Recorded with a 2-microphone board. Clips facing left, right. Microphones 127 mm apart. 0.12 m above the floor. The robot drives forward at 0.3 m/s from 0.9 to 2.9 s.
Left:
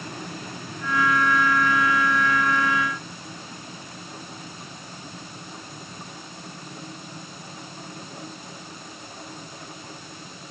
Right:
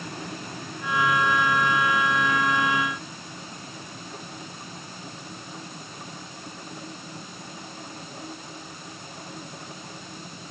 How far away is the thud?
No thud in this recording.